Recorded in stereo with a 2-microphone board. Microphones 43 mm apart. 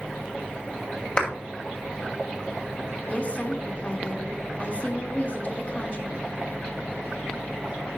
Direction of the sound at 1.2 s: 25° left (ahead or behind).